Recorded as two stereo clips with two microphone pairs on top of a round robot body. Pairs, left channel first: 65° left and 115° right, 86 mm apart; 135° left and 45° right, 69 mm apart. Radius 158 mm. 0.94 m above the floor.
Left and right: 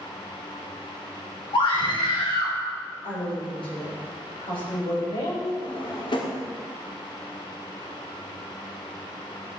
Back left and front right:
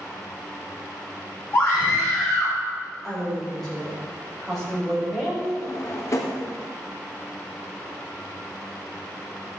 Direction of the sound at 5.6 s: 95° left.